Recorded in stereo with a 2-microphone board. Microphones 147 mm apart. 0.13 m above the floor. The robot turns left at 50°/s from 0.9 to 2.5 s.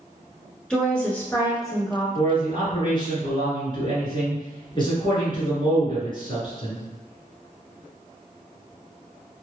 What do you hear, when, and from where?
0.7 s a woman speaking: 170° left, 1.3 m; by 2.0 s 110° left, 1.3 m
2.1 s a man speaking: 40° left (ahead or behind), 1.4 m; by 6.8 s 35° left (ahead or behind), 1.4 m